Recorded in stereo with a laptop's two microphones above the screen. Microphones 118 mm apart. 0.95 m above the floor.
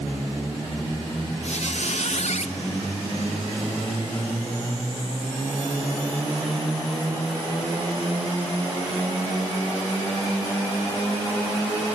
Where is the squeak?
70° left (ahead or behind), 1.0 m.